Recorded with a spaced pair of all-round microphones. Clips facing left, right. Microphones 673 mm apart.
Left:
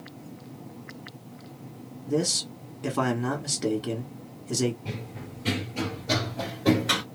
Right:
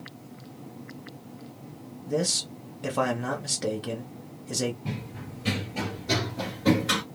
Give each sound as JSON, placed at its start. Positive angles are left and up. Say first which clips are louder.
{"t": 2.1, "sound": "a man speaking", "louder": "left 2 dB", "side_deg": -15, "distance_m": 0.9}
{"t": 4.8, "sound": "running footsteps", "louder": "right 1 dB", "side_deg": -20, "distance_m": 2.0}